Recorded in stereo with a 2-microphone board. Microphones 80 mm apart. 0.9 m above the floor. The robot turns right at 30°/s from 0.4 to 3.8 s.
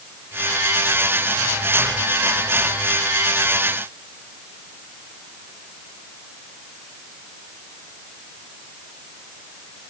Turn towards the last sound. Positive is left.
No sound to turn to.